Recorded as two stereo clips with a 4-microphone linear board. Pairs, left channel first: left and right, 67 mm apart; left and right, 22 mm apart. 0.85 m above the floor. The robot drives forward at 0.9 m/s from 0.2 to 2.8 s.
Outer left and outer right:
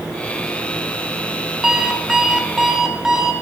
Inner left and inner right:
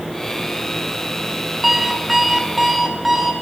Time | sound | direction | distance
1.6 | an alarm clock | 10° right (ahead or behind) | 2.0 m